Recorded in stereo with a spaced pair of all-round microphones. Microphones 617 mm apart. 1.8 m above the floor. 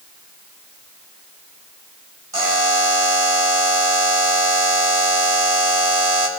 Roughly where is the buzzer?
Right.